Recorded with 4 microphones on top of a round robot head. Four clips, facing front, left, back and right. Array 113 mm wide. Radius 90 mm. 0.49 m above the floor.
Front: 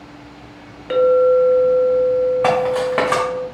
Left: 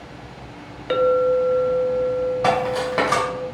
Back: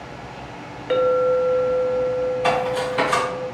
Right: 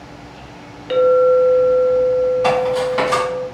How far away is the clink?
About 0.7 m.